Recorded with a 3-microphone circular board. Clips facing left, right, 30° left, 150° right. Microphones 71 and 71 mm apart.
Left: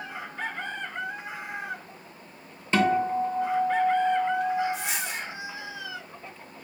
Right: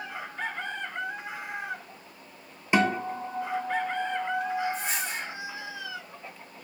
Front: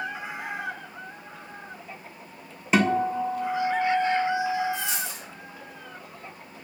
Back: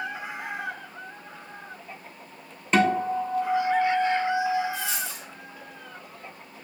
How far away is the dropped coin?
About 1.2 m.